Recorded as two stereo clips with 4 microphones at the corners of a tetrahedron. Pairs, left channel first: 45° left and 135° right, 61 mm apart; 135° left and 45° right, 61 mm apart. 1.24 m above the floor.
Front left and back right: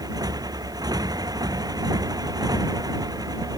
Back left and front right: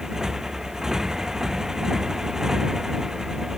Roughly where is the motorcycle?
Behind right.